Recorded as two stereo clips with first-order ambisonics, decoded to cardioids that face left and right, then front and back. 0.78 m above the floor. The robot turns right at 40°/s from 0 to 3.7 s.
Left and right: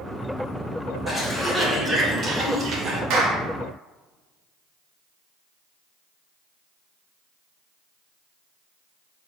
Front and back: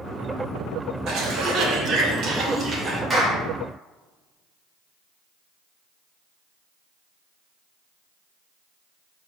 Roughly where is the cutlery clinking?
No cutlery clinking in this recording.